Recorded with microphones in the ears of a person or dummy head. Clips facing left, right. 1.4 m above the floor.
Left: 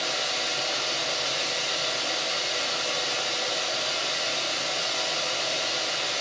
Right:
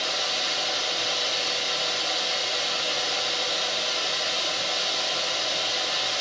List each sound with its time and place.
0.0 s running water: 10° right (ahead or behind), 3.5 m